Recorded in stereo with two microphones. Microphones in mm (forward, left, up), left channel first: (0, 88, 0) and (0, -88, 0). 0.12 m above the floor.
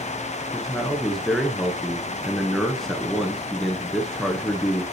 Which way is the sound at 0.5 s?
Centre (ahead or behind).